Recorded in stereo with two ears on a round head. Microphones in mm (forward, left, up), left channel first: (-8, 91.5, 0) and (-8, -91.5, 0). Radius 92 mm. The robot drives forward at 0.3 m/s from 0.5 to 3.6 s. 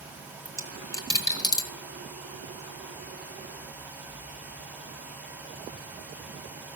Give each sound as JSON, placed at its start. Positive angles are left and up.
{"t": 0.5, "sound": "a dropped coin", "side_deg": 15, "distance_m": 1.4}